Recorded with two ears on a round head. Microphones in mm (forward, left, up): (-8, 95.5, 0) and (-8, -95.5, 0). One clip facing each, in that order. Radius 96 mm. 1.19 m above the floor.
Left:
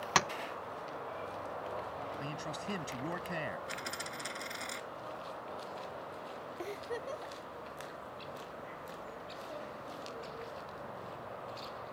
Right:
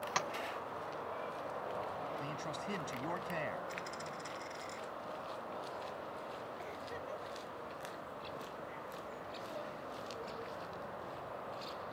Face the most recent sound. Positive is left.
turn(degrees=55)  # may be behind; listen again after turning